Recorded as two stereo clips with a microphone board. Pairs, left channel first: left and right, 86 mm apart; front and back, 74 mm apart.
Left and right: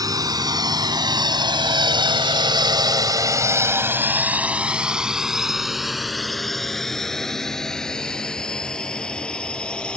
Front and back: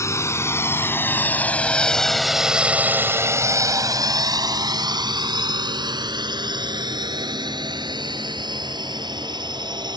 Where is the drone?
45° right; by 10.0 s 170° left.